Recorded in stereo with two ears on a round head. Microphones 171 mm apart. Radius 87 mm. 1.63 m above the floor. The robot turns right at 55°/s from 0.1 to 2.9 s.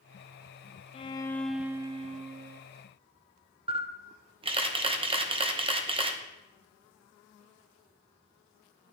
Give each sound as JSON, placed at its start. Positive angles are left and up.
{"t": 0.9, "sound": "a violin", "azimuth_deg": 150, "distance_m": 0.5}
{"t": 3.7, "sound": "a camera shutter", "side_deg": -25, "distance_m": 0.9}